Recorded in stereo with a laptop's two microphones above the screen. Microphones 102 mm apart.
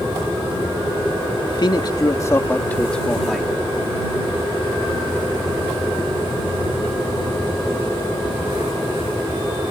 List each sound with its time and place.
1.5 s a man speaking: 55° left (ahead or behind); by 3.5 s centre (ahead or behind)